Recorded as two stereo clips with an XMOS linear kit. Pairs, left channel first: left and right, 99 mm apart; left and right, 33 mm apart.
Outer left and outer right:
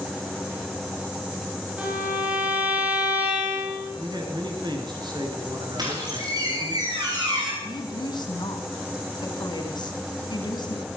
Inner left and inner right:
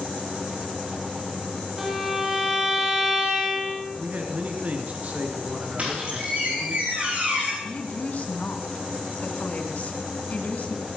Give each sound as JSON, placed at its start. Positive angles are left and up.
{"t": 1.8, "sound": "a violin", "side_deg": -15, "distance_m": 3.5}
{"t": 4.0, "sound": "a man speaking", "side_deg": -45, "distance_m": 2.0}
{"t": 5.8, "sound": "a squeak", "side_deg": -40, "distance_m": 4.5}
{"t": 7.6, "sound": "a woman speaking", "side_deg": 45, "distance_m": 2.0}